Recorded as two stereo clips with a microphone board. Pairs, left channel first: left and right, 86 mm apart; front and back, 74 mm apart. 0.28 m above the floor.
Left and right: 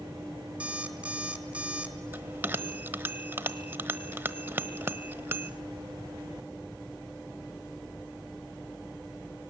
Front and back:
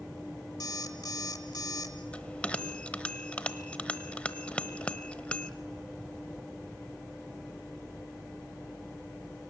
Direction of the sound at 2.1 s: 55° right.